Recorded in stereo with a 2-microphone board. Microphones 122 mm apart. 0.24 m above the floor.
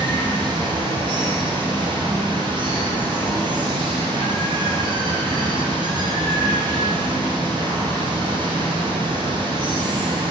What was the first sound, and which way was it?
Running water, 35° right (ahead or behind).